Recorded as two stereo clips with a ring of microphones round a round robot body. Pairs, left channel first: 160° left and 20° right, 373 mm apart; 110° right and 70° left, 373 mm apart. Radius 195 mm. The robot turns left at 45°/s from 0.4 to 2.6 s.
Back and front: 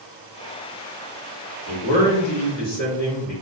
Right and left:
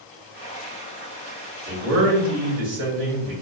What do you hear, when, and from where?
1.7 s a man speaking: 115° left, 1.9 m; by 3.3 s 75° left, 1.9 m